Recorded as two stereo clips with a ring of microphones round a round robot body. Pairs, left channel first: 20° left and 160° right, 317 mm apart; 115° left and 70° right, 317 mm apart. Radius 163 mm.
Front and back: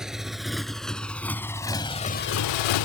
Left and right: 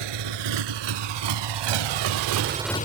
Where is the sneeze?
I don't hear a sneeze.